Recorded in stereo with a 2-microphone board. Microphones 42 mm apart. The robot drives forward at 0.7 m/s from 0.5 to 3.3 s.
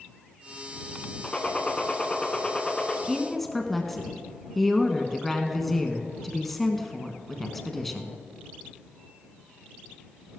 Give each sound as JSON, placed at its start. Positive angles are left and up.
{"t": 1.2, "sound": "a gunshot", "side_deg": 25, "distance_m": 1.5}
{"t": 3.1, "sound": "a woman speaking", "side_deg": 5, "distance_m": 1.3}